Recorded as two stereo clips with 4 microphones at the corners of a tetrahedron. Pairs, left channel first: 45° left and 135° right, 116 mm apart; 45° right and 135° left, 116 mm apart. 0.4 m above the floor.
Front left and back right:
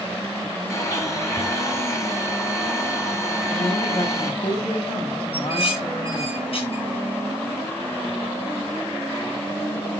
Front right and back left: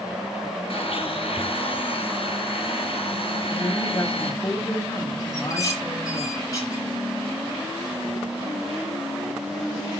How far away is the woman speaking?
About 4 m.